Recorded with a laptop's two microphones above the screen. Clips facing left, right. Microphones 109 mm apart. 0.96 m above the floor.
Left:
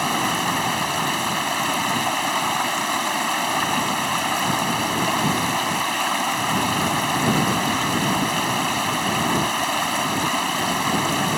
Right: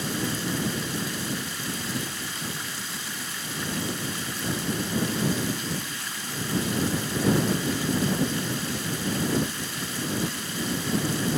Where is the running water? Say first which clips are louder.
Left 7 dB; 80° left.